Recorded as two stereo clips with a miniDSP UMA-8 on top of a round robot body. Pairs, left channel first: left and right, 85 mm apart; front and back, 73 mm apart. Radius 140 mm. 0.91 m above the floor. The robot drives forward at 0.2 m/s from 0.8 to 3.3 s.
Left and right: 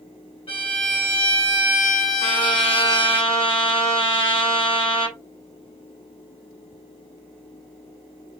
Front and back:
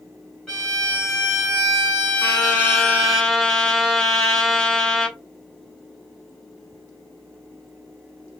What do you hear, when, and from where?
0.5 s a violin: 80° left, 1.6 m; by 3.2 s 100° left, 1.6 m
2.2 s a trumpet: 80° left, 1.5 m; by 5.2 s 90° left, 1.5 m